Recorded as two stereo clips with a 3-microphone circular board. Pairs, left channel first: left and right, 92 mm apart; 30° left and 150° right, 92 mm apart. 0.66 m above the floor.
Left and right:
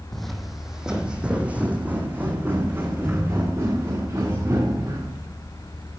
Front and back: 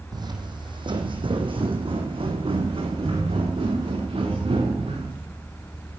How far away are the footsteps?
About 1.5 m.